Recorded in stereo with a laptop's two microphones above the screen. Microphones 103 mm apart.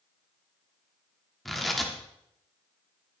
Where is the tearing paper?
Centre (ahead or behind), 1.0 m.